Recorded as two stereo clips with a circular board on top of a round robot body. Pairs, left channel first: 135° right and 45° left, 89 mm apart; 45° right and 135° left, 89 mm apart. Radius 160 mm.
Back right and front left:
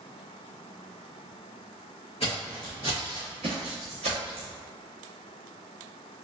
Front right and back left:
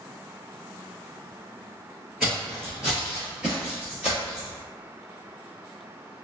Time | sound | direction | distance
2.2 | footsteps | 140° right | 0.6 m